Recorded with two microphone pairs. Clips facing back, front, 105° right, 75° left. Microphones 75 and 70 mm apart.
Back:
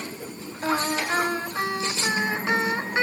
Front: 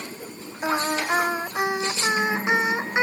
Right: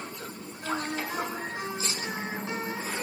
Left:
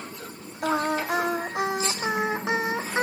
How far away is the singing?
About 0.6 m.